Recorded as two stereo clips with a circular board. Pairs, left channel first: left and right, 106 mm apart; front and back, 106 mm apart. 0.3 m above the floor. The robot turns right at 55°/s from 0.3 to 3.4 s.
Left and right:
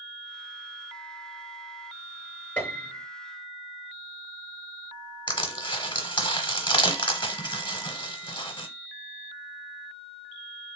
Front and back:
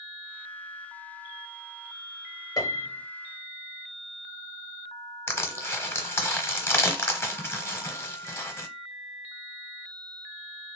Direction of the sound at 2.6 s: 25° left.